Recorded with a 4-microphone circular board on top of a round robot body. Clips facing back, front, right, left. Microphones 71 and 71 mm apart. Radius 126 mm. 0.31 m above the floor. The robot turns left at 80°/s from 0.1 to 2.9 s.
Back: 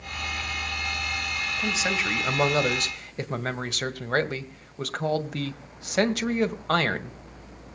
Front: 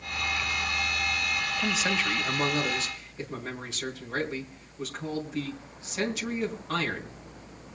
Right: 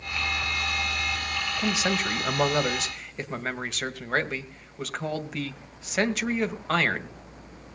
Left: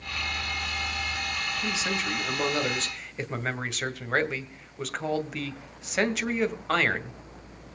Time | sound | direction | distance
1.6 | a man speaking | 75° right | 2 m